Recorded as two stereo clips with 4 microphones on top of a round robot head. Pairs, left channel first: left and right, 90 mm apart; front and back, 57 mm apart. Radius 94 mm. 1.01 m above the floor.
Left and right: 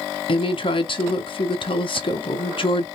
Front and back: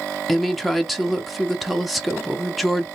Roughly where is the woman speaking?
Left.